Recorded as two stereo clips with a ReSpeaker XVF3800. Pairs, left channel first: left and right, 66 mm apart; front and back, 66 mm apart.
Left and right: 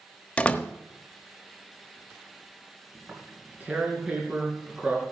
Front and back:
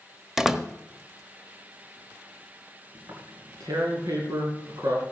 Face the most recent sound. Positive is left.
turn(degrees=-160)